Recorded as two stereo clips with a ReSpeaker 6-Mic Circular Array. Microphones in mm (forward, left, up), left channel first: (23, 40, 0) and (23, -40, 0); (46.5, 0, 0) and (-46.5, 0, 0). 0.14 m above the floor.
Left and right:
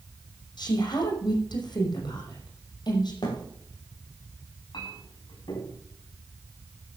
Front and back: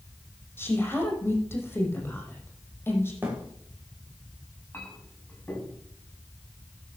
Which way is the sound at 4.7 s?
70° left.